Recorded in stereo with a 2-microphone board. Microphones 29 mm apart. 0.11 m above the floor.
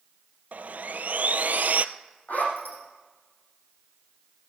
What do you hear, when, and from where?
0.5 s sawing: 70° right (ahead or behind), 0.6 m
2.3 s a zipper: 65° left (ahead or behind), 5 m